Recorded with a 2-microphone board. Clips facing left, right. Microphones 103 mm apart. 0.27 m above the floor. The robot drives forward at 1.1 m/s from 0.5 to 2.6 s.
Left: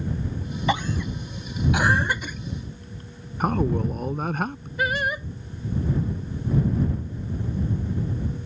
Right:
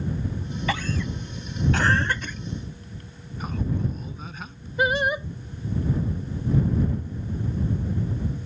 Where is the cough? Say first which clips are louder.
Left 3 dB; 20° left (ahead or behind); by 2.4 s 10° left (ahead or behind).